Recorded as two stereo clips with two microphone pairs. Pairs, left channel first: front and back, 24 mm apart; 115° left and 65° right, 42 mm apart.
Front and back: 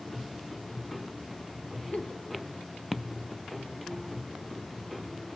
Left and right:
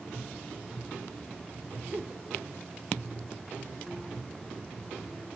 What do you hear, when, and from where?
1.9 s a giggle: 30° right, 1.8 m